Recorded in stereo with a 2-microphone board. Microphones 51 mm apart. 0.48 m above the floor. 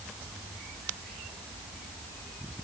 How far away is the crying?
I don't hear crying.